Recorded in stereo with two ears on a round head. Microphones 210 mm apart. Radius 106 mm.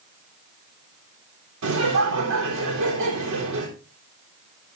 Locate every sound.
1.6 s laughter: 65° right (ahead or behind), 4 m